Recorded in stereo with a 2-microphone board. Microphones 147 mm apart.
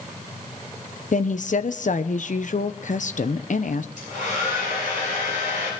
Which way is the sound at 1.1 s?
60° left (ahead or behind).